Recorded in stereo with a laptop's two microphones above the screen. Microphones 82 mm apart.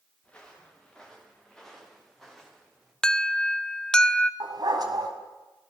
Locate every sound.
0.2 s footsteps: 15° left (ahead or behind), 5 m; by 2.9 s centre (ahead or behind), 7.5 m
3.0 s an alarm: 10° left (ahead or behind), 0.7 m
4.4 s a dog barking: 60° right (ahead or behind), 2 m